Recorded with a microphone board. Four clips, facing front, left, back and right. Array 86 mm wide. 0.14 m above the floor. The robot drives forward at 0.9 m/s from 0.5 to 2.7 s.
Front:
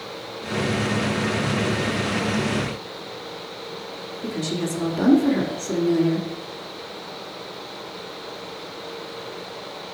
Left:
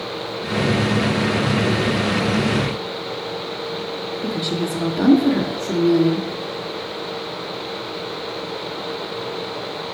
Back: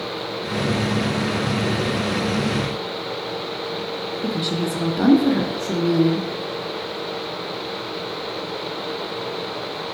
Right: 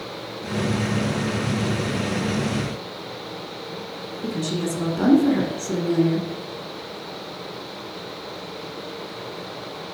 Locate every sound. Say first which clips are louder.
4.2 s a woman speaking: left 1 dB, back 1 dB; 140° left, 1.0 m